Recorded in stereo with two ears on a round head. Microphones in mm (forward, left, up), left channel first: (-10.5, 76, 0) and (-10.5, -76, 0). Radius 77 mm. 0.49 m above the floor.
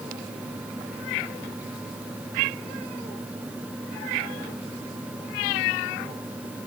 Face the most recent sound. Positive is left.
No sound to turn to.